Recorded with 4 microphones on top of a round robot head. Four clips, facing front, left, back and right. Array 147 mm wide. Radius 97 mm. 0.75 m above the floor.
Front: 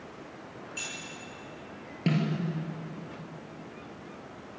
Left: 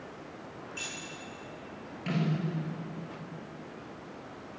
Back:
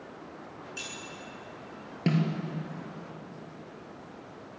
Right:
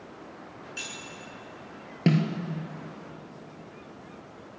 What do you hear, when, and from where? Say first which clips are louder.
0.8 s keys jangling: right 2 dB, front 1 dB; 100° right, 8 m
2.1 s a snare drum: right 7 dB, back 1 dB; 90° right, 3 m